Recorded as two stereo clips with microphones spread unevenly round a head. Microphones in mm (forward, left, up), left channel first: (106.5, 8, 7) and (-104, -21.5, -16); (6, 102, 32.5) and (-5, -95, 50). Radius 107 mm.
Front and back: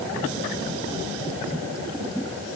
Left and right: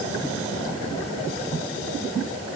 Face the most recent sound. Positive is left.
No sound to turn to.